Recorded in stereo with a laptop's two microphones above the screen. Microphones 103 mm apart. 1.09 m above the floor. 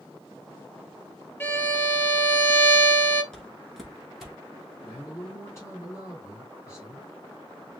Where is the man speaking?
30° left (ahead or behind), 2.5 m.